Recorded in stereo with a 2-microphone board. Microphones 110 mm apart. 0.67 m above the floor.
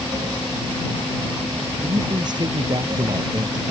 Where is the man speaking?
40° right (ahead or behind).